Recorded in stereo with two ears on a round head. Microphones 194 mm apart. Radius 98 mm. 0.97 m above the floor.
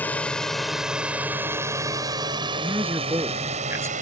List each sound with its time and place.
0.0 s a drone: 5° left (ahead or behind); by 4.0 s 35° right (ahead or behind)
2.6 s a man speaking: 15° right (ahead or behind)